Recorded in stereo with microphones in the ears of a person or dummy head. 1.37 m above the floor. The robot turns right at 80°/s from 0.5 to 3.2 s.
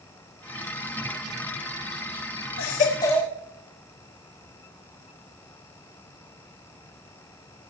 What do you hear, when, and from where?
2.6 s a baby crying: 120° left, 1.4 m; by 3.3 s 170° left, 1.4 m